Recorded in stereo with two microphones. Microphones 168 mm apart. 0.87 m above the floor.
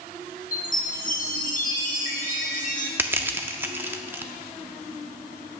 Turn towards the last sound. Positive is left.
turn(degrees=-10)  # may be behind; listen again after turning